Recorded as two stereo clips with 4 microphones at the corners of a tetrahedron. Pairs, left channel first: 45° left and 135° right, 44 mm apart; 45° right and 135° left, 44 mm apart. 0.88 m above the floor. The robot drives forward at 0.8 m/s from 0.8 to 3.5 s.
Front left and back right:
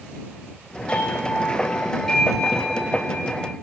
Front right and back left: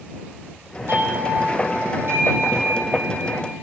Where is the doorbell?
105° left, 3 m; by 3.5 s 135° left, 4 m.